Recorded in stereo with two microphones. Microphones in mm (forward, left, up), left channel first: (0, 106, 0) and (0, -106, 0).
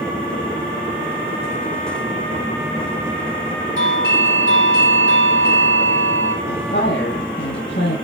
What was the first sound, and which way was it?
A doorbell, 65° left (ahead or behind).